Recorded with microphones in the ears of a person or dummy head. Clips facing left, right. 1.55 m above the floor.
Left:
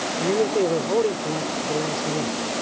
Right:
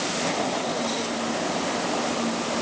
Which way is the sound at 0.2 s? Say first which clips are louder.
Left 9 dB; 55° left (ahead or behind).